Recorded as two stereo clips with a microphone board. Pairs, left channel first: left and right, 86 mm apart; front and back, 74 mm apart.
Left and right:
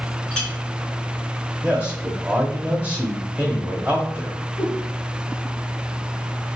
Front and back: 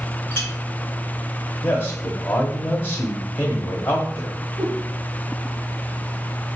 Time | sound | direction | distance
0.3 | a clink | 20° left | 0.9 m
1.6 | a man speaking | 30° right | 1.0 m
4.6 | a whoosh | 145° left | 2.0 m